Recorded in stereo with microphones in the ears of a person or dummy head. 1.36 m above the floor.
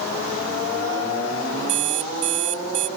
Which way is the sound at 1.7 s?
35° right (ahead or behind).